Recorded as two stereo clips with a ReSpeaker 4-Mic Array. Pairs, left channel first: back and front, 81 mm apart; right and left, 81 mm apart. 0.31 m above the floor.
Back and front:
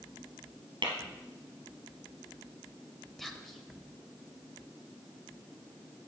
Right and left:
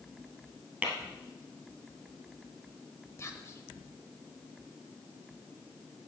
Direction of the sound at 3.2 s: 95° right.